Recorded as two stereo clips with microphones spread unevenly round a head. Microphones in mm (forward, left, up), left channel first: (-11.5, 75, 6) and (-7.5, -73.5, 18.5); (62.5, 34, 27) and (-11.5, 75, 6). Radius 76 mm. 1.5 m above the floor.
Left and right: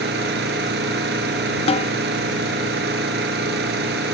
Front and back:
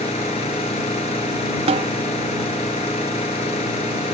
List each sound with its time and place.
0.0 s an engine running: 65° right
1.7 s a snare drum: 145° left